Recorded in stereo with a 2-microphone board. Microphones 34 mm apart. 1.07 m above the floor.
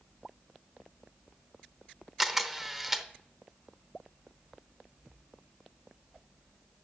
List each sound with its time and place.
2.2 s a camera shutter: 10° right (ahead or behind), 0.8 m